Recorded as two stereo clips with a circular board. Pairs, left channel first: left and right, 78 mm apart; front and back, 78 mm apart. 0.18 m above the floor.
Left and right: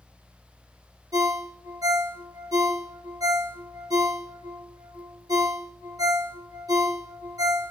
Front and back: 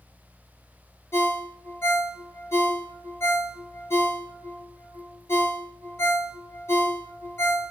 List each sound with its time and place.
1.1 s a ringtone: 55° right, 1.2 m